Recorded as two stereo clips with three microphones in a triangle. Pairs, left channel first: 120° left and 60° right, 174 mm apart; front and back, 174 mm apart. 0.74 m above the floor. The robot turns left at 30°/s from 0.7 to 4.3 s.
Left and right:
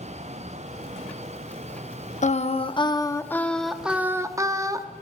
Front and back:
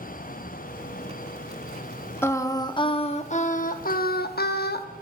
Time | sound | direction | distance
2.2 | singing | 75° left | 0.8 m